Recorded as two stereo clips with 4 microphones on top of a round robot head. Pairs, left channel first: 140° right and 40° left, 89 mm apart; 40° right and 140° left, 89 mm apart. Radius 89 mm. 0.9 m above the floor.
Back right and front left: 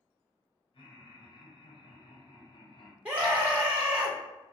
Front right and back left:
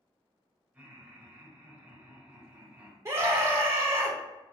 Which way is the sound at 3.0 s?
100° left.